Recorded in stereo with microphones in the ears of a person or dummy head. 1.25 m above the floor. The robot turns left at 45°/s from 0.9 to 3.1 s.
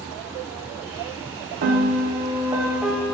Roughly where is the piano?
Behind right.